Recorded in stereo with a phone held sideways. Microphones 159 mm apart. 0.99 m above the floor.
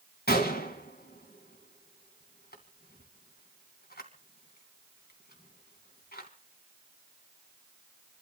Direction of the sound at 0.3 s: 75° left (ahead or behind).